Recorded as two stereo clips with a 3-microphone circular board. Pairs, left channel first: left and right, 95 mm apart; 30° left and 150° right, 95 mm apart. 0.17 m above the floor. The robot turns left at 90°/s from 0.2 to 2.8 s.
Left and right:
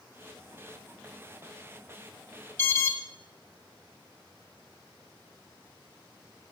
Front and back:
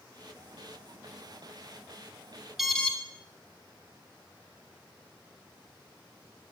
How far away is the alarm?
About 0.7 m.